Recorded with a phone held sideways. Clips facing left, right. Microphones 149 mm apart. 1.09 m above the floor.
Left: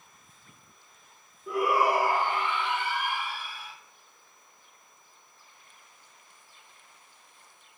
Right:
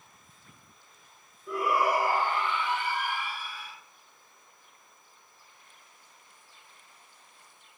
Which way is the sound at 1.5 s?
80° left.